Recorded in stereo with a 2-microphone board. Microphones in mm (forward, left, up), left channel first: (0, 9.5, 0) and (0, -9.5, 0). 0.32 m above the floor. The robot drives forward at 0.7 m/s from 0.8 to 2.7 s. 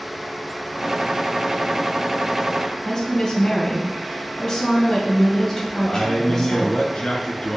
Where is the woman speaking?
40° left (ahead or behind), 3.5 m.